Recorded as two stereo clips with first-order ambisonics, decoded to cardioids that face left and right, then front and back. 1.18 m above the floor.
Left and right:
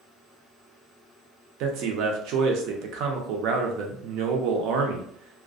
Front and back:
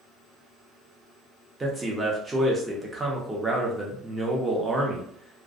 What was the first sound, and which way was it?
A man speaking, 105° right.